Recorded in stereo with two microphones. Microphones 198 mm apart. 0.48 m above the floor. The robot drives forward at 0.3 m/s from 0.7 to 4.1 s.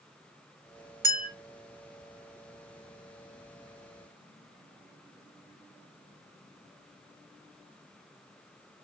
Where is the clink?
45° right (ahead or behind), 0.9 m; by 1.3 s 40° right (ahead or behind), 0.9 m.